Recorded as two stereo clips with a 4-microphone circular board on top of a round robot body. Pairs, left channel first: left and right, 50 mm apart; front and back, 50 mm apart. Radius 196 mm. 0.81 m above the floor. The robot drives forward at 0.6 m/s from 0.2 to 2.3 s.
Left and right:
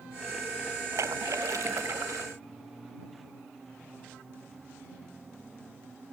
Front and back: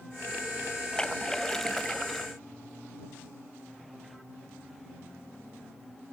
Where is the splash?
75° right; by 2.3 s 90° right.